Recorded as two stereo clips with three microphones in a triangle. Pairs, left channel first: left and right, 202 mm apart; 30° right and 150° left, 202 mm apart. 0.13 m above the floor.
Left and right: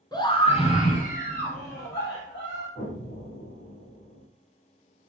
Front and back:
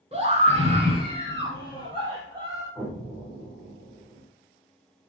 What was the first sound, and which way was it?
A scream, 140° left.